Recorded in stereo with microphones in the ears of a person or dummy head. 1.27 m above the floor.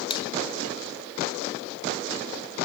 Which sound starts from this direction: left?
A finger snap, at 0.1 s.